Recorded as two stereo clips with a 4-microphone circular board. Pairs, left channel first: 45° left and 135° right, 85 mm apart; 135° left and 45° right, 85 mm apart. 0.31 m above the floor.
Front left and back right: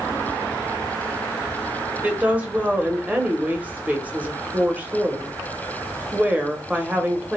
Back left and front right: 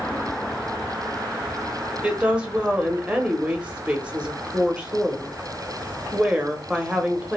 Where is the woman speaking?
95° right, 1.0 m.